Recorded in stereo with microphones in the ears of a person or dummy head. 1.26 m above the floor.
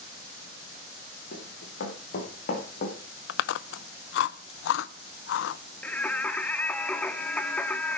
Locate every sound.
1.3 s running footsteps: 60° left (ahead or behind), 8 m; by 3.0 s 45° left (ahead or behind), 6 m
3.3 s chewing: 65° left (ahead or behind), 0.6 m
5.8 s singing: 10° left (ahead or behind), 1.4 m